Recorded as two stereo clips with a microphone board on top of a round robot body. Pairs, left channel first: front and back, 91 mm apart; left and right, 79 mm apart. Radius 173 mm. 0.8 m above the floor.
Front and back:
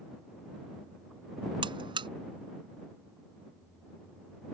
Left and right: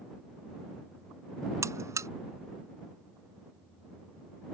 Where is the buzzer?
140° right.